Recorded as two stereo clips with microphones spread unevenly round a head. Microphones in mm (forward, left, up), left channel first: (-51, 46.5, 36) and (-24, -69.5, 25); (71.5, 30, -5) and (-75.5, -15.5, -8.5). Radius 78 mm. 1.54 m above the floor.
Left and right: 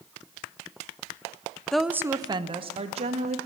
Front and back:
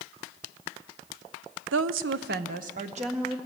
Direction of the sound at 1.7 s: 170° right.